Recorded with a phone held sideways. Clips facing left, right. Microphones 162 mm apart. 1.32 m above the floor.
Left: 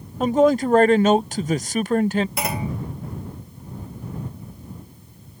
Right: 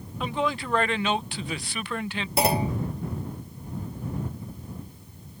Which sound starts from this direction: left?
A man speaking, at 0.2 s.